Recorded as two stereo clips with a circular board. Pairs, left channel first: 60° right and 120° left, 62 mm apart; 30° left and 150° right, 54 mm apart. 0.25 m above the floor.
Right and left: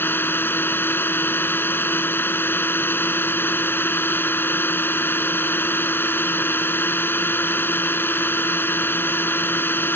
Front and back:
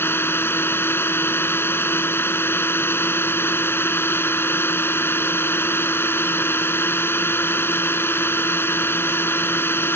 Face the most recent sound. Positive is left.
turn(degrees=-10)